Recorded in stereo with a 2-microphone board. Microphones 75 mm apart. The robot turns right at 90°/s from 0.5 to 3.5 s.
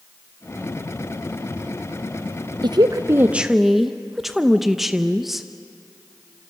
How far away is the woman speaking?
About 0.6 m.